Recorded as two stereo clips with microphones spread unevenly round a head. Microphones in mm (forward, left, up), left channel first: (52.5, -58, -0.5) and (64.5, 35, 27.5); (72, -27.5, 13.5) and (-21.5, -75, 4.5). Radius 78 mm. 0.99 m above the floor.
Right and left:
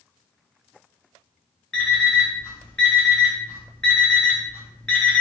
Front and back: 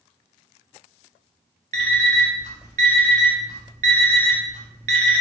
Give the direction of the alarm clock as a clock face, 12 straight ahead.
6 o'clock.